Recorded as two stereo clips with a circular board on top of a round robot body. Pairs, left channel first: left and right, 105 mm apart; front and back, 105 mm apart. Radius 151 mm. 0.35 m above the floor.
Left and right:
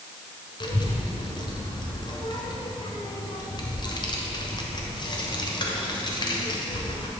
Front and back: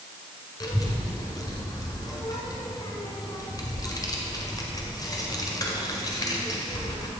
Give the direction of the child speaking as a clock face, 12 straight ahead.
10 o'clock.